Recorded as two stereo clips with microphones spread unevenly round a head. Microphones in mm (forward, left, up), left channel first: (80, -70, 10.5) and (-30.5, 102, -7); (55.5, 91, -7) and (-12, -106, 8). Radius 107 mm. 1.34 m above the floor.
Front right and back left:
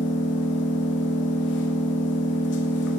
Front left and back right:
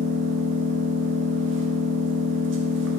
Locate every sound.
0.0 s an engine running: 90° right, 0.9 m